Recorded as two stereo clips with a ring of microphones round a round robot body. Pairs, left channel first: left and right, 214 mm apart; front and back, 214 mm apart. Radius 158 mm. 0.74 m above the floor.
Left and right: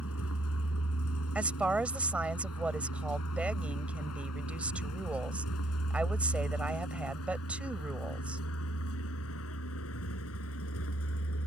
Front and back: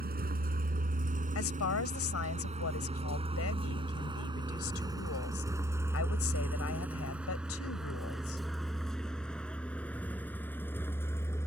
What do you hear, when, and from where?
0.0 s a vehicle: 135° left; by 11.5 s 80° left
1.4 s a woman speaking: 5° right